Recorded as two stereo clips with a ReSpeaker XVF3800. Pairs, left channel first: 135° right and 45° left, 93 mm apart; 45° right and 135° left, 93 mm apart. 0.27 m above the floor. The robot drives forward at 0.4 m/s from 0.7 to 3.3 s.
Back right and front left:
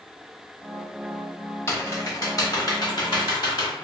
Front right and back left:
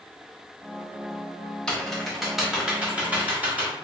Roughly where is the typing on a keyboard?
Behind right.